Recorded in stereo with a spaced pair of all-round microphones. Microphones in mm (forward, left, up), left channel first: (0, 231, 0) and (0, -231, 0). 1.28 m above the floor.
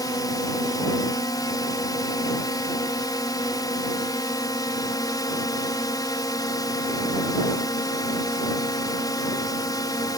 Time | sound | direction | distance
0.0 | a drone | 10° left (ahead or behind) | ?